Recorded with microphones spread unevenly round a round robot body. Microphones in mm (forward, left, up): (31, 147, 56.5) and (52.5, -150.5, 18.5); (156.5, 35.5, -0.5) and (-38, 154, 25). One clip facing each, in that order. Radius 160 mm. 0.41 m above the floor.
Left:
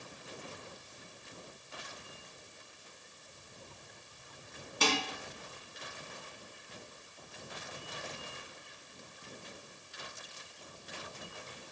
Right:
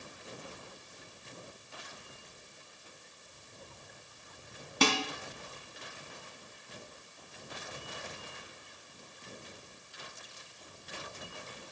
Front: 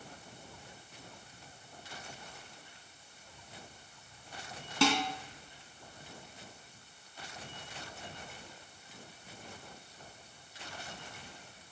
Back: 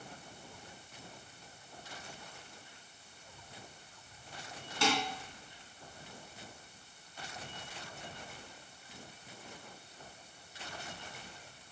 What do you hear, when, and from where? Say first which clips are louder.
4.8 s dishes clattering: right 4 dB, front 4 dB; 65° right, 3 m